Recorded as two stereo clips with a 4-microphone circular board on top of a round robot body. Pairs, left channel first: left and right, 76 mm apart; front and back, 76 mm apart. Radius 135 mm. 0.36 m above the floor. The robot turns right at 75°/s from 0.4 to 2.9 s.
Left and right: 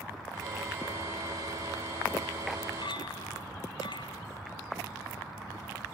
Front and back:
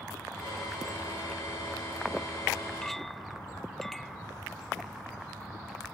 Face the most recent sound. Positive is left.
turn(degrees=90)